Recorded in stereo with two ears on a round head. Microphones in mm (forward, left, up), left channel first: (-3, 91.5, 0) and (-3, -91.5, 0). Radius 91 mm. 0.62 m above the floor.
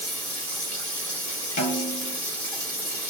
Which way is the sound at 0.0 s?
5° left (ahead or behind).